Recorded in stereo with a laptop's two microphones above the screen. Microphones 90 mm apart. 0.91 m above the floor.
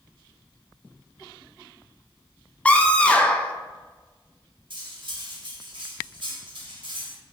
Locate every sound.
2.6 s a scream: 15° left (ahead or behind), 0.6 m
4.7 s cutlery clinking: 60° right (ahead or behind), 0.9 m